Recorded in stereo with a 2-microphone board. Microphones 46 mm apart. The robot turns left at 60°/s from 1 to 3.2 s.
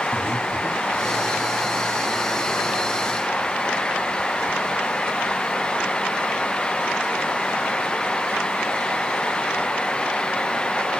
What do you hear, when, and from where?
0.1 s breathing: 80° right, 1.6 m; by 1.0 s 75° right (ahead or behind), 1.6 m